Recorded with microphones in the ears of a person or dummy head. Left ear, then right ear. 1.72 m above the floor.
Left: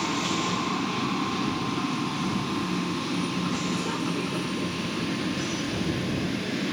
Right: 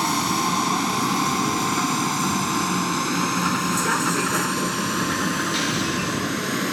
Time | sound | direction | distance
0.0 | a vehicle | 80° right | ?